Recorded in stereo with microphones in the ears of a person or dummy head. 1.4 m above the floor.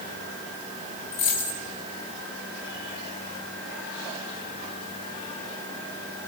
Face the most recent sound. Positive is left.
turn(degrees=60)  # may be behind; listen again after turning